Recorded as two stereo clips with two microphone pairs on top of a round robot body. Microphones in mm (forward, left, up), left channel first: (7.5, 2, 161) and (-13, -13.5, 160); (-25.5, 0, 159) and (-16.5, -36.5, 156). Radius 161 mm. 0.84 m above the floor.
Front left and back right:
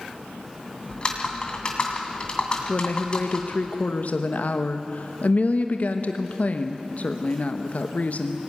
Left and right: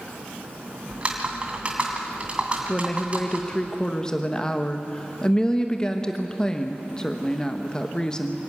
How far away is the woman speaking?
About 1.2 m.